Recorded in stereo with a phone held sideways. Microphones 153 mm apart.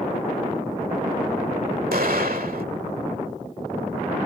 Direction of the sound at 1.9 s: 70° right (ahead or behind).